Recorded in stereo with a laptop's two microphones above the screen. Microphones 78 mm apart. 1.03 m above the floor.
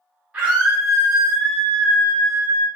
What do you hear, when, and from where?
0.3 s a scream: 20° right (ahead or behind), 1.0 m; by 2.7 s 30° left (ahead or behind), 1.1 m